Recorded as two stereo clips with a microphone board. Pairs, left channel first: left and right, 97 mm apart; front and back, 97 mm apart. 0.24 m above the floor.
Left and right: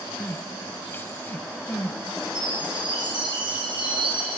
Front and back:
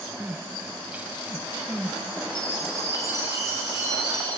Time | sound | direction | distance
0.2 | crying | 125° left | 1.1 m
2.4 | a chime | 125° right | 4 m